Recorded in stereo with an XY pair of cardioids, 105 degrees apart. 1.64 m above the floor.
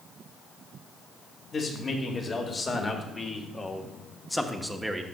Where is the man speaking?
45° left, 2 m; by 5.0 s 15° right, 0.8 m.